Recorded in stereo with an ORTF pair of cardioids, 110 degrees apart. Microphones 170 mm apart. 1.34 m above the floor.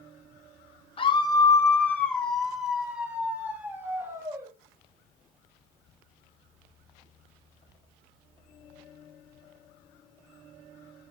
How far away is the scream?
About 1.9 m.